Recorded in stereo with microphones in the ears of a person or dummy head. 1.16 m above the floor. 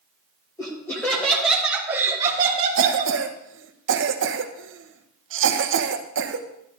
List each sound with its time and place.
0.6 s laughter: 15° left (ahead or behind), 2 m; by 3.1 s 50° right (ahead or behind), 1.6 m
2.8 s a cough: 60° right (ahead or behind), 0.9 m